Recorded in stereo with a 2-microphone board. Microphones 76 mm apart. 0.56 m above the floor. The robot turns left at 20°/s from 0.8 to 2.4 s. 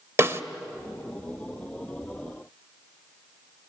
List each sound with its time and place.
0.2 s a snare drum: 35° right (ahead or behind), 0.9 m